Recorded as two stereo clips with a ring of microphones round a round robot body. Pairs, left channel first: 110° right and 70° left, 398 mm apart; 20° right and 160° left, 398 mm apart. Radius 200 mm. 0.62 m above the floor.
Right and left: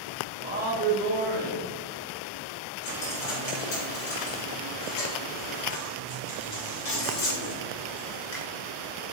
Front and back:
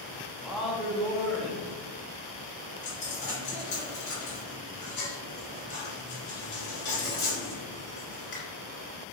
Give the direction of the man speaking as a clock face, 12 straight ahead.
10 o'clock.